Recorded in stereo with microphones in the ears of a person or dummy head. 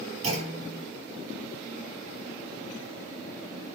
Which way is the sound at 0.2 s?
45° right (ahead or behind).